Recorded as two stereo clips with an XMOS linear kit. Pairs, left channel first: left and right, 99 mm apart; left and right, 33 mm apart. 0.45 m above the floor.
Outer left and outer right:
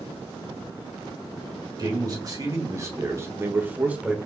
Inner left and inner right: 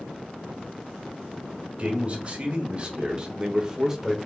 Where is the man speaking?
40° right (ahead or behind), 2 m; by 4.2 s 10° right (ahead or behind), 1.1 m.